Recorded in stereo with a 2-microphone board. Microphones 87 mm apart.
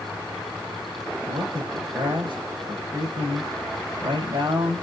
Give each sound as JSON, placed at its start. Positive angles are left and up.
{"t": 1.3, "sound": "a man speaking", "side_deg": -65, "distance_m": 3.0}